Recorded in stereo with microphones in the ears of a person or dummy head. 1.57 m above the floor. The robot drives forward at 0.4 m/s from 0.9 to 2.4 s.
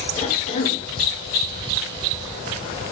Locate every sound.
0.2 s a cough: 45° left (ahead or behind), 4 m